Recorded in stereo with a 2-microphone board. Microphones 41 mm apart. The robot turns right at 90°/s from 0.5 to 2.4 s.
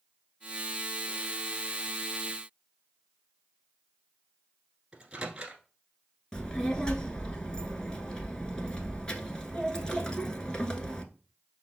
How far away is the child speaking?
About 0.8 m.